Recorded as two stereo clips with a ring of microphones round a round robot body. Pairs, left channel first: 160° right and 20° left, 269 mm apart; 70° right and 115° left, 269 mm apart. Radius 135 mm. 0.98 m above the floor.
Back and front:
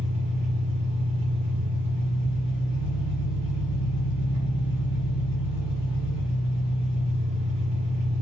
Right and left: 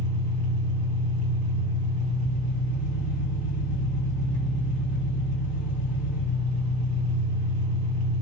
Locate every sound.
0.0 s an engine running: 105° left, 1.8 m